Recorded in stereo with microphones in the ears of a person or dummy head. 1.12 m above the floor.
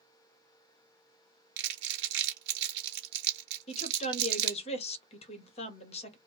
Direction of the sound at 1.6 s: 55° right (ahead or behind).